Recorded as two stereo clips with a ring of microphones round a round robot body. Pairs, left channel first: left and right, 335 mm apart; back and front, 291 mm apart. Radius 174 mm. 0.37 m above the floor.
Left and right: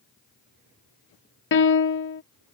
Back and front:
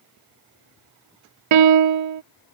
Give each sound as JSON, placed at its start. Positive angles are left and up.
{"t": 1.5, "sound": "a piano", "azimuth_deg": 30}